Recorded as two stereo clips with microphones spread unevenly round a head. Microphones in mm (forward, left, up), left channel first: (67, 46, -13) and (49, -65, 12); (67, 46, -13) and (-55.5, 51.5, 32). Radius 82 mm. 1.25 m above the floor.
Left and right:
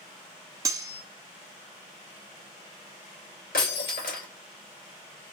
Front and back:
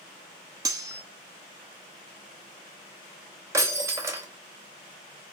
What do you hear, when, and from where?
0.7 s cutlery clinking: 145° right, 0.8 m
3.5 s breaking glass: 115° left, 2.5 m